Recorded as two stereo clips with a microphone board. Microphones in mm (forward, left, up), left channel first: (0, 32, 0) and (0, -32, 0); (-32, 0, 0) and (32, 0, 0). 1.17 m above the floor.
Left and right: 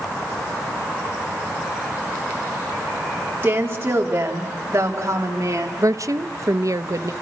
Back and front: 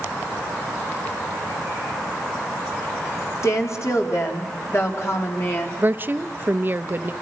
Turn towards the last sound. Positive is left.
turn(degrees=-55)